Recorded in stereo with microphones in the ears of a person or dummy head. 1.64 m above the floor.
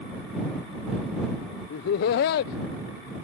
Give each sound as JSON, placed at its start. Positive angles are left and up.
{"t": 1.7, "sound": "laughter", "side_deg": 55}